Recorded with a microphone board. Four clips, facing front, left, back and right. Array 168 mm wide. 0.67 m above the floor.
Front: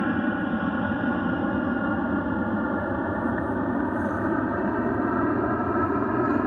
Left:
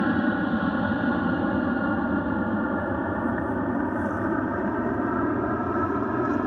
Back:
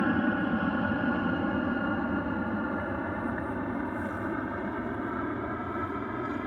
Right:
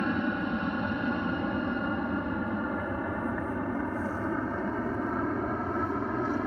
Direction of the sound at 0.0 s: 70° left.